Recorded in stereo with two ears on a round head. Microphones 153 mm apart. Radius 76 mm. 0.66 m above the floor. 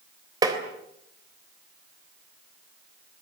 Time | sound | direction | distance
0.4 | tapping | 25° right (ahead or behind) | 3.5 m